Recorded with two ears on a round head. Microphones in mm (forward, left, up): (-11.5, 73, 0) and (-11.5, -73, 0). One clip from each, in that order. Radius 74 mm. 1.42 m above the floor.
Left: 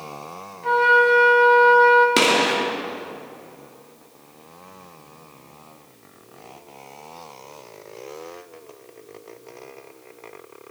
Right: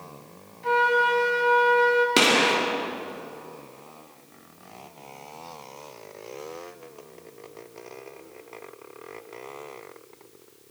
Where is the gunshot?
Centre (ahead or behind), 2 m.